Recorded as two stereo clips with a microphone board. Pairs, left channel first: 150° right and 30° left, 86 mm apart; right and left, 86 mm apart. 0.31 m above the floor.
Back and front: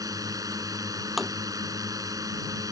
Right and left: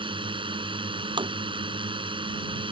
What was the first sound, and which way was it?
A drone, 75° left.